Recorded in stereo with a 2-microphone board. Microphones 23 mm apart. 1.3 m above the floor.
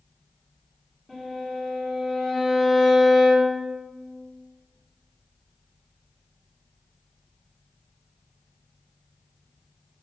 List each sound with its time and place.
1.1 s a violin: 15° left (ahead or behind), 1.0 m